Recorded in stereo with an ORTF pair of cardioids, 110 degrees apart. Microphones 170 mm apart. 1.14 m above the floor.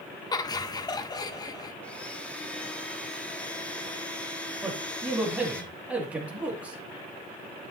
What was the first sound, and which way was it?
Laughter, 25° left.